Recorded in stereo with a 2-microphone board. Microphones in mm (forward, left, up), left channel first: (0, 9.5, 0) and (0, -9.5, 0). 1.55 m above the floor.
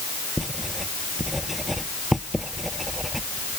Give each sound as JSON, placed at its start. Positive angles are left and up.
{"t": 0.4, "sound": "writing", "side_deg": -5}